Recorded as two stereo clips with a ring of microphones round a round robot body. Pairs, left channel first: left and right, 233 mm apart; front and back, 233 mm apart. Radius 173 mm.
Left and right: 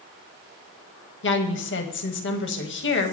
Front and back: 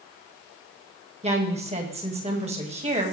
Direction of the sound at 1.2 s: 120° left.